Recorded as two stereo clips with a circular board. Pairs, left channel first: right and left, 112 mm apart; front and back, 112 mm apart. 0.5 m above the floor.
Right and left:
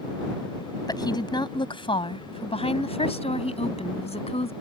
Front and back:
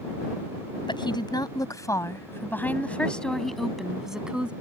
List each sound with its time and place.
0.9 s a woman speaking: 40° right; by 4.5 s 100° right